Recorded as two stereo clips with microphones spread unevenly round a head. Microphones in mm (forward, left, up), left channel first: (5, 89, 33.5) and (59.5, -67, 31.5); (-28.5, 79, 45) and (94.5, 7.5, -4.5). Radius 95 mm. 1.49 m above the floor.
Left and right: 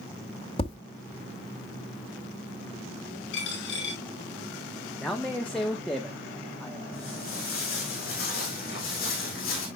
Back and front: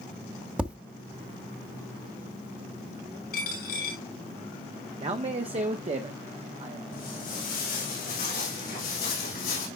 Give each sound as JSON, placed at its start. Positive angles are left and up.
{"t": 0.6, "sound": "tapping", "azimuth_deg": 70, "distance_m": 1.7}
{"t": 3.3, "sound": "a dropped coin", "azimuth_deg": 145, "distance_m": 6.0}
{"t": 5.0, "sound": "a man speaking", "azimuth_deg": 25, "distance_m": 1.0}
{"t": 6.9, "sound": "footsteps", "azimuth_deg": 155, "distance_m": 6.0}